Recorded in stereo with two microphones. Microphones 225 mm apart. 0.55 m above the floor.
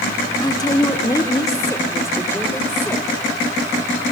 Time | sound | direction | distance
0.4 | a woman speaking | 15° left (ahead or behind) | 0.9 m